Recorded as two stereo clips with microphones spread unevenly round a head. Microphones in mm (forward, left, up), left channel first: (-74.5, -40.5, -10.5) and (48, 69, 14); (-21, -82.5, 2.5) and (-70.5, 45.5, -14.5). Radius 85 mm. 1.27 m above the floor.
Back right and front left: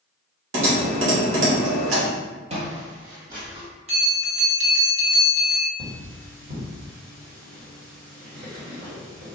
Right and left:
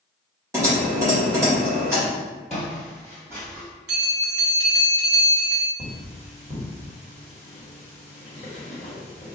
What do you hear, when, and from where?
0.5 s typing on a keyboard: 40° left, 1.9 m
2.5 s footsteps: 10° left, 1.8 m; by 3.7 s 40° left, 3 m
3.9 s a bell: 95° left, 1.6 m
5.8 s cutlery clinking: 20° left, 1.5 m